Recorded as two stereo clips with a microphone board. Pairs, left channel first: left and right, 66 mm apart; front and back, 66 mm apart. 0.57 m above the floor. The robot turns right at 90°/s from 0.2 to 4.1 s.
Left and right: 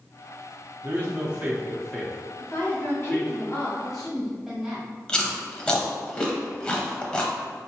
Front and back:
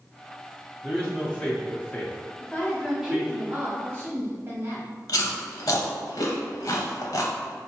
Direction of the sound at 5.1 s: 15° left.